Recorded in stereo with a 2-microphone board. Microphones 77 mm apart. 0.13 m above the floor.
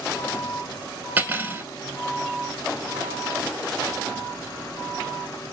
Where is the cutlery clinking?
25° right (ahead or behind), 0.9 m.